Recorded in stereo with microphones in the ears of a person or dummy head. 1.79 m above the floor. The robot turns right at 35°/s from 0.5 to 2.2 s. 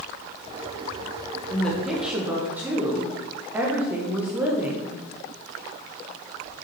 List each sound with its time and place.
1.5 s a woman speaking: 15° left (ahead or behind), 1.4 m; by 5.0 s 10° right (ahead or behind), 1.4 m